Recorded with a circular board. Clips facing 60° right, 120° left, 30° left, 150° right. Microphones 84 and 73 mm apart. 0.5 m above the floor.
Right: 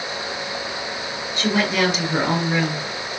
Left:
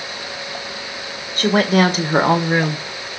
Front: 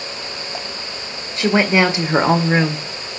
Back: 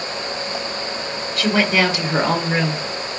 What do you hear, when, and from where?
1.4 s a woman speaking: 90° left, 2 m; by 2.9 s 85° left, 1.5 m